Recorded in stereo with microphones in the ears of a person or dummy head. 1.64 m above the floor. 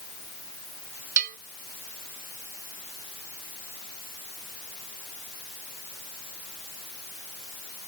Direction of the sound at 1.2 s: 50° right (ahead or behind).